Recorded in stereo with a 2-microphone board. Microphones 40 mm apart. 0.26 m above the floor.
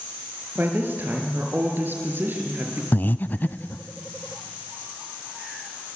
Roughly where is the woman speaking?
Right.